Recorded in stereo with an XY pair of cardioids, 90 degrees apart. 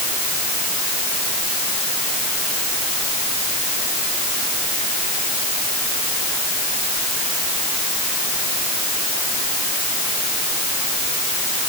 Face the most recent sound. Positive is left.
No sound to turn to.